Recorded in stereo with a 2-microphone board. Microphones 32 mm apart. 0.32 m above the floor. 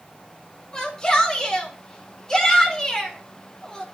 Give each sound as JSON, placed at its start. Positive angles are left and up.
{"t": 0.7, "sound": "a shout", "side_deg": 20, "distance_m": 4.0}